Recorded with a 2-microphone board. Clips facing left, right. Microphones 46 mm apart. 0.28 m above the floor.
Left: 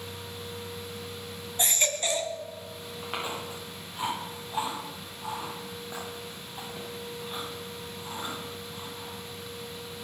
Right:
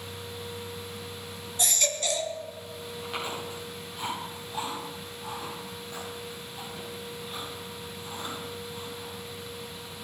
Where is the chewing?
25° left (ahead or behind), 8 m.